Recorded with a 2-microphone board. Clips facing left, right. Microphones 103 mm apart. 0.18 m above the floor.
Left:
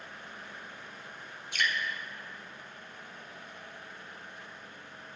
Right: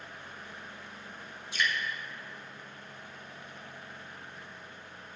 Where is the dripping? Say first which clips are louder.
Right 1 dB; 60° left (ahead or behind), 1.7 m.